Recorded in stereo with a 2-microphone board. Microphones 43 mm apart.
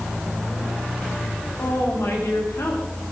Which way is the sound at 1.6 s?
75° left (ahead or behind).